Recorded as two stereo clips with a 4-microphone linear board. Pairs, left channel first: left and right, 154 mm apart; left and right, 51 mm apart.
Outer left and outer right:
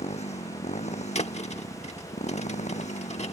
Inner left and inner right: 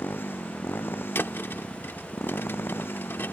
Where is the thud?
45° left (ahead or behind).